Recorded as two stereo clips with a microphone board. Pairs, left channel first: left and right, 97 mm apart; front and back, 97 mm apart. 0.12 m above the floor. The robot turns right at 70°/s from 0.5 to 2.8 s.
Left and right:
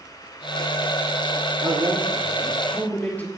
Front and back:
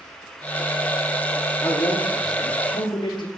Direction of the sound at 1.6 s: 65° right.